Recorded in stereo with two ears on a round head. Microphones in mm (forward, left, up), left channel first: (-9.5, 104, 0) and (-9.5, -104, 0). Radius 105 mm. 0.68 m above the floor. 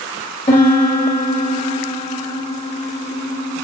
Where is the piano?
25° left (ahead or behind), 1.0 m.